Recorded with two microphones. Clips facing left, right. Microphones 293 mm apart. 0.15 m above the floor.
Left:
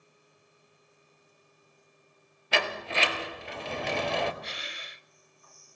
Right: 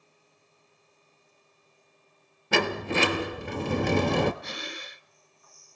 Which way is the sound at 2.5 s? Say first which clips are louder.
Right 7 dB; 55° right (ahead or behind).